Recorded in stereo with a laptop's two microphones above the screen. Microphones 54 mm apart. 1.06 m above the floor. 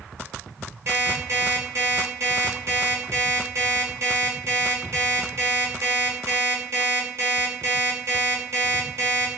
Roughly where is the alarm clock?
Right.